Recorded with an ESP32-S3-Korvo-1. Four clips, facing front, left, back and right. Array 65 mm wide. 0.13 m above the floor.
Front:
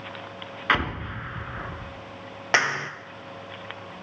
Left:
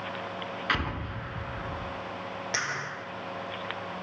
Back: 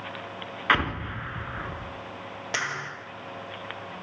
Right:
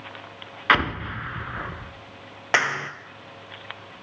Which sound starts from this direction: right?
An explosion, at 0.7 s.